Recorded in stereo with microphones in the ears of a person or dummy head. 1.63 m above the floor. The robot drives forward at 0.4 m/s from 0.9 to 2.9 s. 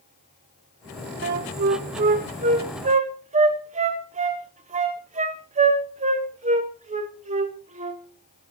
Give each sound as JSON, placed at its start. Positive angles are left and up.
{"t": 1.2, "sound": "a flute", "side_deg": -50, "distance_m": 0.9}